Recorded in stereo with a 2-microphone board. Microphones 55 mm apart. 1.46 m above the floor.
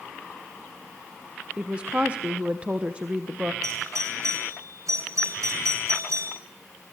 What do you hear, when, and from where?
1.6 s a woman speaking: 25° right (ahead or behind), 1.1 m
3.6 s a doorbell: 70° right (ahead or behind), 7.5 m